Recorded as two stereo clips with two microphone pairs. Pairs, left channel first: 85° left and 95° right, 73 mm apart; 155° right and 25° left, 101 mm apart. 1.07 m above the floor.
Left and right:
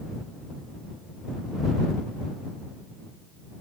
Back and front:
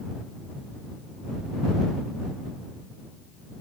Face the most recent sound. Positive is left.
No sound to turn to.